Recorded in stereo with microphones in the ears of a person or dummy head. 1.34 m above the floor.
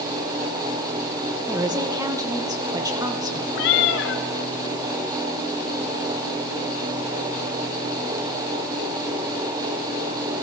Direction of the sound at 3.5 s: 60° left (ahead or behind).